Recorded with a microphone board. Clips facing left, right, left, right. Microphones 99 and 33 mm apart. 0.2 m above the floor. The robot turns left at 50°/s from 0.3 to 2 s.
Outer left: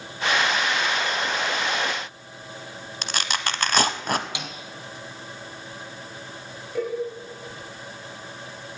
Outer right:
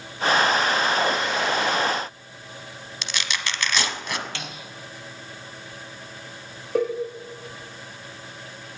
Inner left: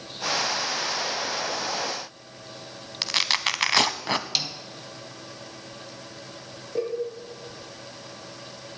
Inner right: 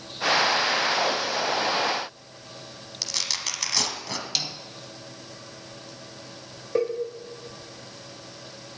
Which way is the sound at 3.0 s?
45° left (ahead or behind).